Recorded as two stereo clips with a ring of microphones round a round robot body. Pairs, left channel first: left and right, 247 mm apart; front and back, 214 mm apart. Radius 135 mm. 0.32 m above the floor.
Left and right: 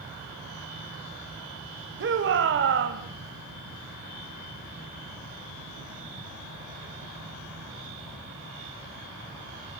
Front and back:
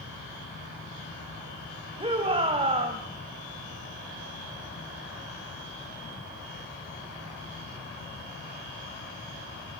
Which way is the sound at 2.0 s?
120° right.